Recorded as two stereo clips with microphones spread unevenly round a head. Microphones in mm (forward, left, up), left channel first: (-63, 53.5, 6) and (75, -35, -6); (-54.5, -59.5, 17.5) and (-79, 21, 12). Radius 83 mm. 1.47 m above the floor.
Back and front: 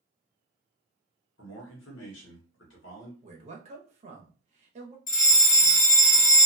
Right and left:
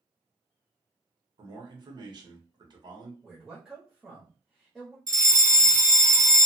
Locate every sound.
1.4 s a man speaking: 145° left, 1.1 m
3.2 s a man speaking: 20° left, 0.9 m
5.1 s a fire alarm: 120° left, 1.4 m